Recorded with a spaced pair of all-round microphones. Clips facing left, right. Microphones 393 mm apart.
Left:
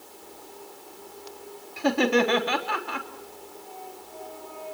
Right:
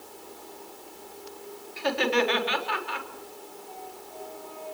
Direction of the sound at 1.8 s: 65° left (ahead or behind).